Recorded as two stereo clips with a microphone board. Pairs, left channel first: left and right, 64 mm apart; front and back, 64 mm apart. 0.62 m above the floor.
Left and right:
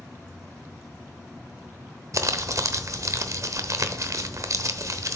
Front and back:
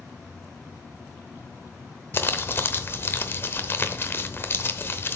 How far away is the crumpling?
About 0.8 m.